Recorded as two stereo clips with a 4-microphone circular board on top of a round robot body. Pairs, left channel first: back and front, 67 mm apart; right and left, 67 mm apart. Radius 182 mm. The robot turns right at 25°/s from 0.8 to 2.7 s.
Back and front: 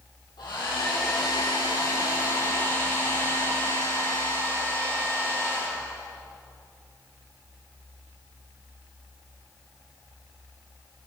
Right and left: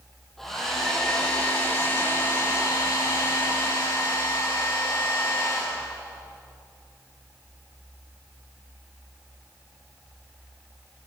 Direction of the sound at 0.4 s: 175° right.